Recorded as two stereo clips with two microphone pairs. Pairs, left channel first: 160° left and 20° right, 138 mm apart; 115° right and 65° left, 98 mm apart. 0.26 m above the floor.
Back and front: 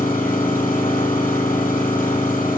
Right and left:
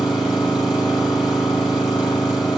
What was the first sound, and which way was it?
An engine running, 155° left.